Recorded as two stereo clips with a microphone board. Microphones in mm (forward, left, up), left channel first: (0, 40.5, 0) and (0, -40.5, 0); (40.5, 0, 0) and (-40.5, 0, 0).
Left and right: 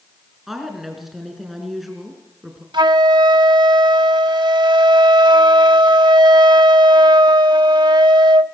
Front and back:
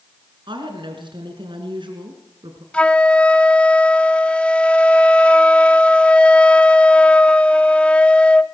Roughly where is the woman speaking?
Behind.